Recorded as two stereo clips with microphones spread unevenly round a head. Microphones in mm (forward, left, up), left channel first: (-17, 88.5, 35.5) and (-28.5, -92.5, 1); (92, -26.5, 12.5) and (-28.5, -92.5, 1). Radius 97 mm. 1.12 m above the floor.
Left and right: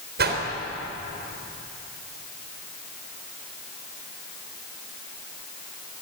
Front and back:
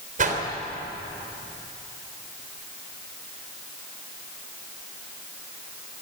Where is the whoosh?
130° right, 3.5 m.